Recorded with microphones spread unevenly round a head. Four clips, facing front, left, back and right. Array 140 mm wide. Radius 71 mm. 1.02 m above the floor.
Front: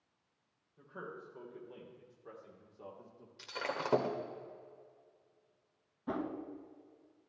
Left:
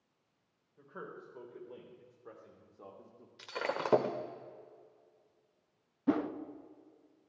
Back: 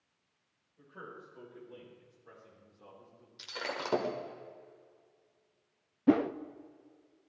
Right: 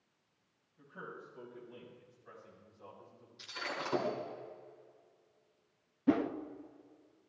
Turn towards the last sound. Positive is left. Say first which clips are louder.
# right 1 dB, back 12 dB
turn(degrees=-175)